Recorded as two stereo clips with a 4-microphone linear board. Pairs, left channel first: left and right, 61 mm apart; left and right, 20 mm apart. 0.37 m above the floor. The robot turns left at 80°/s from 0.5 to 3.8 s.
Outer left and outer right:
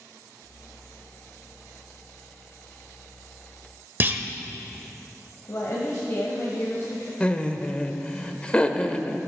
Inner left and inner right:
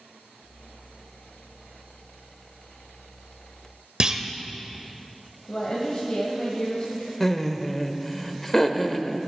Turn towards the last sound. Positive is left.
turn(degrees=20)  # may be behind; listen again after turning